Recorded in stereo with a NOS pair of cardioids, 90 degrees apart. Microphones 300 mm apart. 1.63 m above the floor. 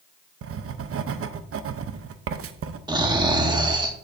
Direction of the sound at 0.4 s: 50° right.